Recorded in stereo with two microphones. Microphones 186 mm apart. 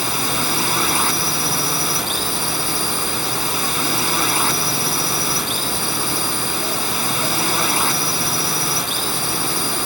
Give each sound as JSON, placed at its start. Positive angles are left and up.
{"t": 0.0, "sound": "a drone", "side_deg": 0}